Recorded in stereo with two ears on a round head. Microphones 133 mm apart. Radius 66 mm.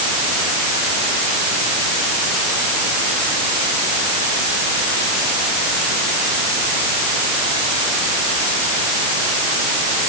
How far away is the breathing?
I don't hear breathing.